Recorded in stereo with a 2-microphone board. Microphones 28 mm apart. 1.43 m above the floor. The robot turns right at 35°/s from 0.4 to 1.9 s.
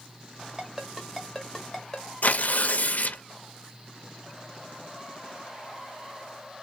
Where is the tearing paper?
60° left (ahead or behind), 0.6 m.